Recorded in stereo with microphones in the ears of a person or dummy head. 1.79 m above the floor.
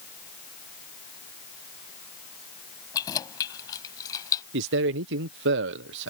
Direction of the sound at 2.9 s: 20° left (ahead or behind).